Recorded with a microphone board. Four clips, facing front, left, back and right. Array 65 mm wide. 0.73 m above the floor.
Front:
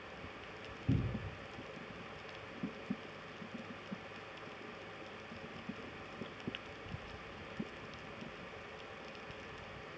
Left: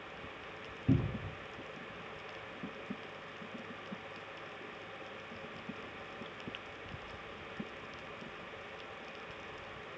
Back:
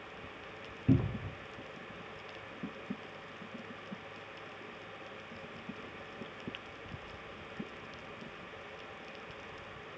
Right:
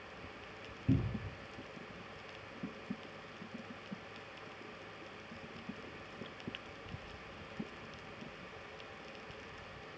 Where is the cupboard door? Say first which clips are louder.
Left 2 dB, back 8 dB; 160° left, 0.7 m.